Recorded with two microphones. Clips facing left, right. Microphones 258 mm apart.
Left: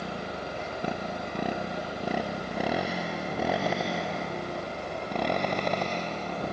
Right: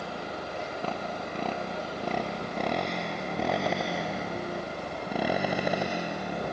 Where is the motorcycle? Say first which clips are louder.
Left 1 dB; 20° left (ahead or behind); by 6.5 s 15° right (ahead or behind).